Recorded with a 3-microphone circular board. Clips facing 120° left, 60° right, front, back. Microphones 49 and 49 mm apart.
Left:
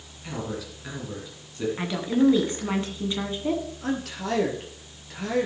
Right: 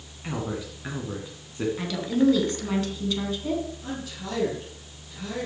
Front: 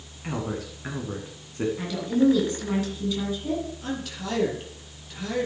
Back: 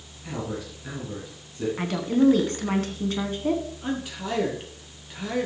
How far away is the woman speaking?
About 2.0 m.